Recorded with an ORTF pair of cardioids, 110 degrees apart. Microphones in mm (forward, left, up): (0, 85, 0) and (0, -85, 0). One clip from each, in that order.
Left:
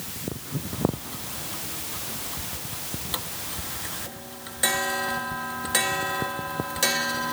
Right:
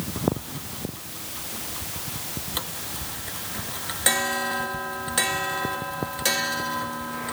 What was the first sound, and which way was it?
Only background noise.